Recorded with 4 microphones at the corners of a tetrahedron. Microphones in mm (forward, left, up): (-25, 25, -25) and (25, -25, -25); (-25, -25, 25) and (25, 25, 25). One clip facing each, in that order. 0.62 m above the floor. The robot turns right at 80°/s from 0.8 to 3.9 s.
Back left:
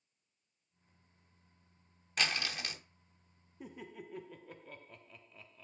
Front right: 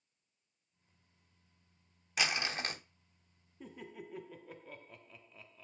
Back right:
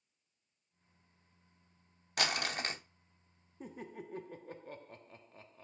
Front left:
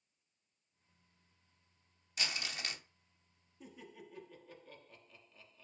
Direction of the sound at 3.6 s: 155° right.